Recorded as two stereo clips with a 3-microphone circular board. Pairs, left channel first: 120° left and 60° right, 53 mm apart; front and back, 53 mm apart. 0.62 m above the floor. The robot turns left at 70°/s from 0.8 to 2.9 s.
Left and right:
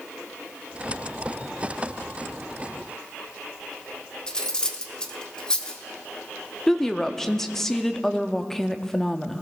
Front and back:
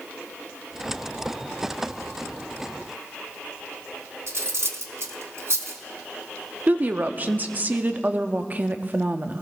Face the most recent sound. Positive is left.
turn(degrees=-165)